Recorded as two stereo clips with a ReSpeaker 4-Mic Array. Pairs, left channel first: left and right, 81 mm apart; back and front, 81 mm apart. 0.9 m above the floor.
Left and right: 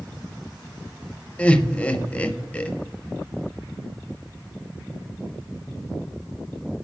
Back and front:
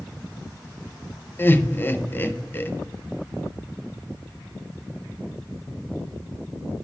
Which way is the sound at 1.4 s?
145° left.